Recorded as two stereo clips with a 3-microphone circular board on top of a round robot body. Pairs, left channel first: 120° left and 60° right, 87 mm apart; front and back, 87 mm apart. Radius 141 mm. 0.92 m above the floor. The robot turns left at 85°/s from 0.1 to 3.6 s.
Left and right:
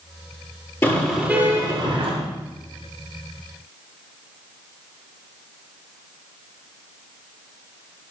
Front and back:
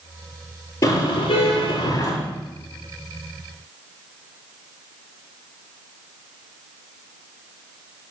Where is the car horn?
60° left, 9.5 m; by 2.1 s 50° right, 9.5 m.